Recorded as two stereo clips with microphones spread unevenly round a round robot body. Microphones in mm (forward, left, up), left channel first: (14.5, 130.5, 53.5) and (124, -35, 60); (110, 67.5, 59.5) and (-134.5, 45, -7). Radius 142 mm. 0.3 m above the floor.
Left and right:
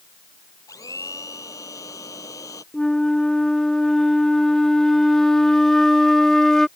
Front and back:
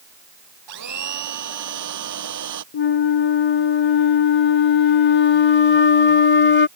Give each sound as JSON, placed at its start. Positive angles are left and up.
{"t": 0.7, "sound": "a blender", "azimuth_deg": -160}
{"t": 2.7, "sound": "a flute", "azimuth_deg": 40}